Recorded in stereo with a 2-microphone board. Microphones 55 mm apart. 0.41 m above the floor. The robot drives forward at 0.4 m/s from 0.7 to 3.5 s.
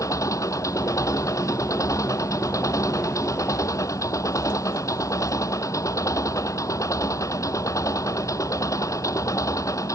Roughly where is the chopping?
No chopping in this recording.